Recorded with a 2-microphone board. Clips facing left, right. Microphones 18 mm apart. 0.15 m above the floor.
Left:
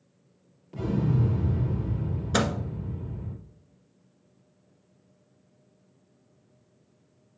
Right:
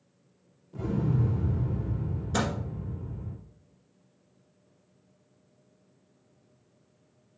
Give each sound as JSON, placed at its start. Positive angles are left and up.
{"t": 0.7, "sound": "an explosion", "side_deg": 60, "distance_m": 4.0}
{"t": 2.3, "sound": "a microwave", "side_deg": 35, "distance_m": 1.6}